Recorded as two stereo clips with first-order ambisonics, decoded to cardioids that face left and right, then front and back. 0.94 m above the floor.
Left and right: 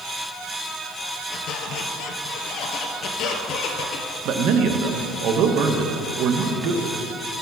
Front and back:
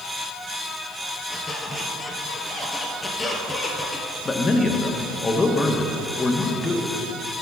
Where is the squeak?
75° left, 1.2 m.